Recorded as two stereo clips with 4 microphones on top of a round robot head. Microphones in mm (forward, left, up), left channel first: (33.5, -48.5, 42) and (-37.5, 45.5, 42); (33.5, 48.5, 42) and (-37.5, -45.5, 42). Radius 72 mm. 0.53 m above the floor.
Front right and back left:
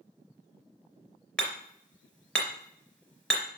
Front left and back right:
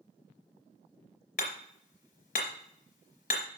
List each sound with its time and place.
1.4 s hammering: 30° left, 3 m